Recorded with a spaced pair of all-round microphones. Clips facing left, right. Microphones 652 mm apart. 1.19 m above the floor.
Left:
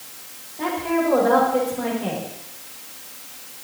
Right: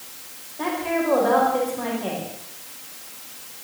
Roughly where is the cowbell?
I don't hear a cowbell.